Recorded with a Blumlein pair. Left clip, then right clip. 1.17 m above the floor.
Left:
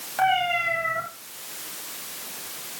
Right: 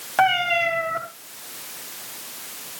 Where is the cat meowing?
65° right, 5 m.